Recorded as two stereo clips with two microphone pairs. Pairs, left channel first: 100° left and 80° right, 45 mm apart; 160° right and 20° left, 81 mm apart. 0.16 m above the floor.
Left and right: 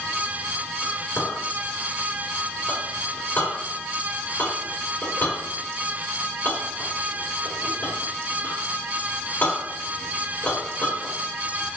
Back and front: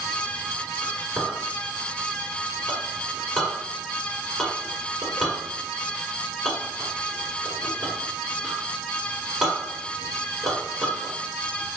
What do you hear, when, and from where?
0.8 s a clink: 110° left, 1.3 m